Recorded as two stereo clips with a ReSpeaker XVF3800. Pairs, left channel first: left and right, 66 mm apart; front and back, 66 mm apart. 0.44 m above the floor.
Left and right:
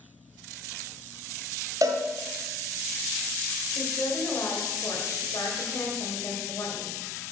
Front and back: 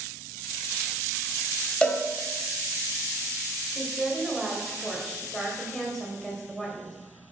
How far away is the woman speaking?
About 2 m.